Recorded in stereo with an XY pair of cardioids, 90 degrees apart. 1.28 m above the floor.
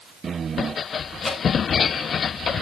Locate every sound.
1.2 s dripping: 20° left, 5 m